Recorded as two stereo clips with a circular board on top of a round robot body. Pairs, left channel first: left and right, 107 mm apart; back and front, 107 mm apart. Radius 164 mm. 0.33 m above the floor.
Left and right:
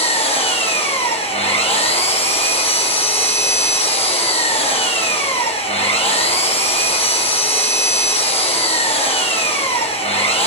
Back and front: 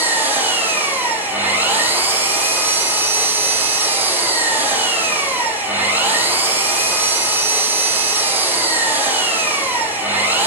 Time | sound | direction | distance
0.0 | an engine running | 70° left | 5.5 m